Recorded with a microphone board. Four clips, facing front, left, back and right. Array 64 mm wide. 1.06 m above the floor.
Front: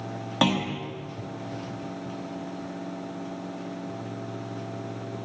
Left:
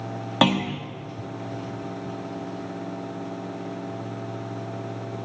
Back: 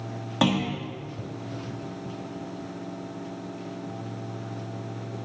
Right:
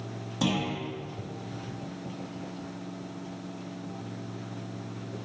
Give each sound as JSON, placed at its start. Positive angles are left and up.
{"t": 0.4, "sound": "a clunk", "azimuth_deg": 85, "distance_m": 0.9}